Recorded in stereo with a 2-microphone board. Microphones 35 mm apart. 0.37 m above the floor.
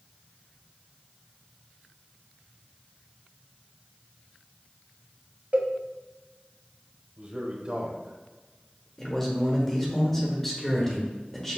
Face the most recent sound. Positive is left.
turn(degrees=10)  # may be behind; listen again after turning